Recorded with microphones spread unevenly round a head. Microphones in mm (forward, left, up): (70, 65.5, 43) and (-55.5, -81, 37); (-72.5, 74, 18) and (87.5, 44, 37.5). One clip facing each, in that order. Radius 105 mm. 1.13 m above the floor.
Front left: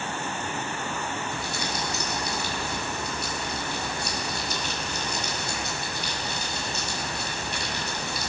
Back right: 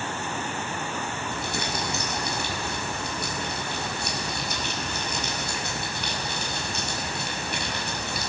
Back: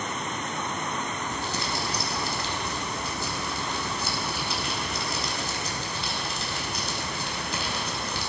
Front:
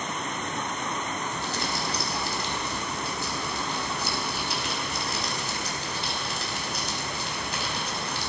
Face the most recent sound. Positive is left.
turn(degrees=-175)